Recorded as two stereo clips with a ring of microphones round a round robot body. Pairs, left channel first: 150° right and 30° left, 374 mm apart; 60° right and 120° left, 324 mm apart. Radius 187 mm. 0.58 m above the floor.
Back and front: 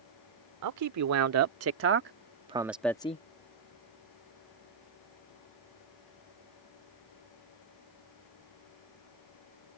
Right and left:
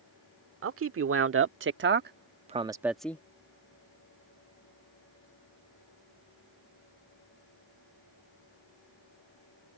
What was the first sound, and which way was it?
A man speaking, 75° left.